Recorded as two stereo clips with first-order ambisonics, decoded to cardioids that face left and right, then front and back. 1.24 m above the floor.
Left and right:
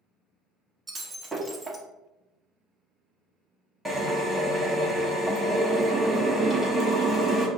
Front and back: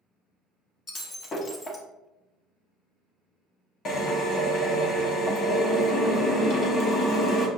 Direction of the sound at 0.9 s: 15° right.